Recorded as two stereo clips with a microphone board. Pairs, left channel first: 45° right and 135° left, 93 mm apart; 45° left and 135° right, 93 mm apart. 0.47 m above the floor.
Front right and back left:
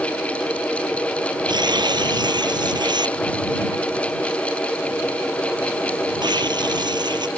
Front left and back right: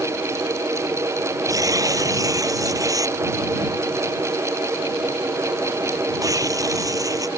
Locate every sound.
1.5 s tearing paper: 175° left